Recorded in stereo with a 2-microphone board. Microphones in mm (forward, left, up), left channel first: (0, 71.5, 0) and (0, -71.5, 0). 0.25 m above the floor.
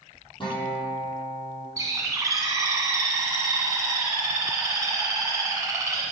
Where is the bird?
25° right (ahead or behind), 1.7 m.